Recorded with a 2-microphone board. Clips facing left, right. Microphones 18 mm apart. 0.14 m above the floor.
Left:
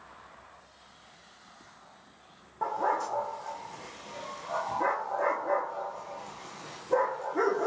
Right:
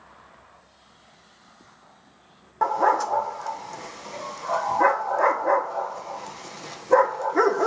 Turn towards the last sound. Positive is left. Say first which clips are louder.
# right 8 dB
turn(degrees=-65)  # may be behind; listen again after turning